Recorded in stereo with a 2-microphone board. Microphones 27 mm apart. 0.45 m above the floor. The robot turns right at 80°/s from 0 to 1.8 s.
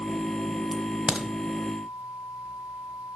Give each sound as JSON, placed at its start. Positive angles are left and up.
{"t": 0.7, "sound": "a crack", "side_deg": 0, "distance_m": 1.0}